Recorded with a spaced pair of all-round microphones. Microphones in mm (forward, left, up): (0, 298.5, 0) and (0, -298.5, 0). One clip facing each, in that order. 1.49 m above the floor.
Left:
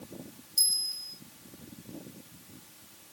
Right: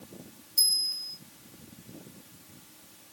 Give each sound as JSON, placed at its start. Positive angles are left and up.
{"t": 0.6, "sound": "a bell", "side_deg": 5, "distance_m": 1.4}